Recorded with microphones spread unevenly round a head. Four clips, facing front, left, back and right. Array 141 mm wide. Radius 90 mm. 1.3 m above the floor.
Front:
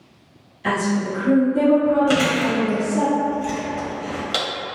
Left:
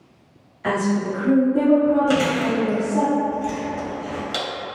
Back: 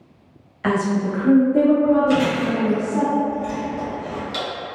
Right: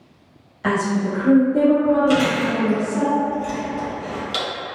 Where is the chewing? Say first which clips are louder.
Right 1 dB, even; 10° right, 1.3 m.